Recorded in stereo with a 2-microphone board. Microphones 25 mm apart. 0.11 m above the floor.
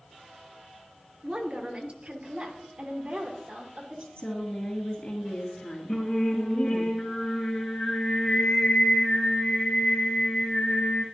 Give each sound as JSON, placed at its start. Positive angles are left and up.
{"t": 1.2, "sound": "a woman speaking", "side_deg": -40, "distance_m": 1.3}
{"t": 4.2, "sound": "a woman speaking", "side_deg": 45, "distance_m": 2.5}
{"t": 5.9, "sound": "singing", "side_deg": 50, "distance_m": 5.5}